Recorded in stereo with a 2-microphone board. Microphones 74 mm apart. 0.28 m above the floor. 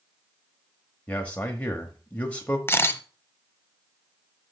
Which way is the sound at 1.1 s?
20° left (ahead or behind).